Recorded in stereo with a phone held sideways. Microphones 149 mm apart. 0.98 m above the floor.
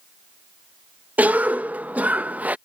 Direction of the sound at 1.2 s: 10° right (ahead or behind).